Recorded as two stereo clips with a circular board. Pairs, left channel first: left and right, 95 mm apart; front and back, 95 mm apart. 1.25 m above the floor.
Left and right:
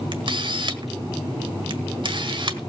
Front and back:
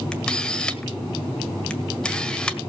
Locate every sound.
0.1 s a camera shutter: 80° right, 1.6 m